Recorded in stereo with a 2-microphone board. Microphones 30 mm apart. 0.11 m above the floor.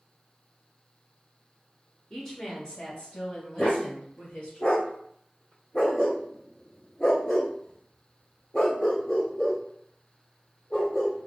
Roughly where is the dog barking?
Left.